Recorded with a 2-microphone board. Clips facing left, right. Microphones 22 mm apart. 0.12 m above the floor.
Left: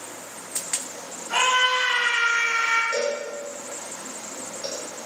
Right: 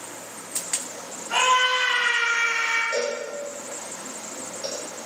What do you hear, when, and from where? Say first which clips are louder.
1.3 s a scream: even; centre (ahead or behind), 1.3 m; by 2.8 s 45° right (ahead or behind), 1.6 m
2.9 s a cowbell: left 1 dB; 20° right (ahead or behind), 1.8 m